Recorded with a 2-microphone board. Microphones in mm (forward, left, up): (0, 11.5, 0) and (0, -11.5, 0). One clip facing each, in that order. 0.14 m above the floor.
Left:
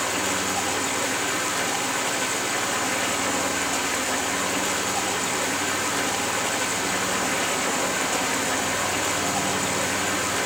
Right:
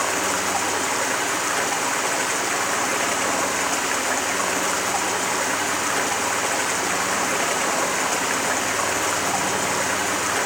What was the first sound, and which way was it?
Running water, 75° right (ahead or behind).